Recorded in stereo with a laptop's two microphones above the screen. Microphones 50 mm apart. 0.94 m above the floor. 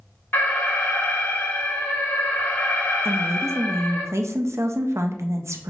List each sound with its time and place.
0.3 s an alarm: 40° left (ahead or behind), 1.6 m
3.0 s a woman speaking: 65° right (ahead or behind), 0.5 m